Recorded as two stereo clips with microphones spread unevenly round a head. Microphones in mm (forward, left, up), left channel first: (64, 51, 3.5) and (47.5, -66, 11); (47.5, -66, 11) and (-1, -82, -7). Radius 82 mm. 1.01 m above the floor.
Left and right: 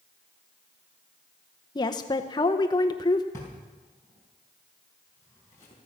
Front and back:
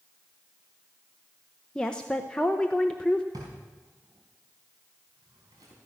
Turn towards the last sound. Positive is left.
turn(degrees=155)